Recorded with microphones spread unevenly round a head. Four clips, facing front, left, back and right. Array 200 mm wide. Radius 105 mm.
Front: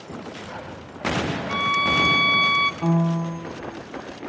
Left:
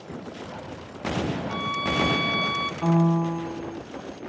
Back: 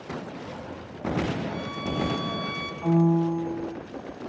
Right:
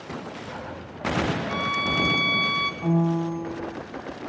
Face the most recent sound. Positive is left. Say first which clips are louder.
# left 2 dB, back 1 dB
turn(degrees=30)